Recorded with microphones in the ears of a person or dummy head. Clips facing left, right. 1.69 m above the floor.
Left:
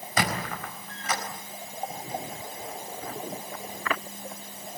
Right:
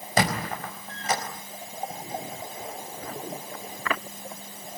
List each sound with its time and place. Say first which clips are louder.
0.2 s a squeak: right 3 dB; 30° right (ahead or behind), 4.5 m